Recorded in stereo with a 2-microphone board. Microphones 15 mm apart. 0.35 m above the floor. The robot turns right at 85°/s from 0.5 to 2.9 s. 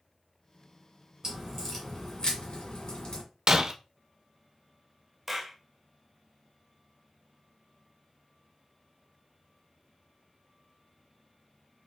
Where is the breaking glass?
40° right (ahead or behind), 0.6 m.